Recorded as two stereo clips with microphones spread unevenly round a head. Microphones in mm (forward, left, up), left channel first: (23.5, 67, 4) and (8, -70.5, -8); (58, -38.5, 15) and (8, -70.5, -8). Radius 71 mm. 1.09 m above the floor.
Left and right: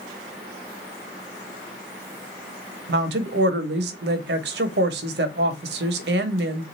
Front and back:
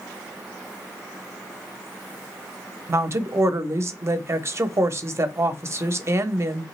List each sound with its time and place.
2.9 s a woman speaking: 110° right, 0.8 m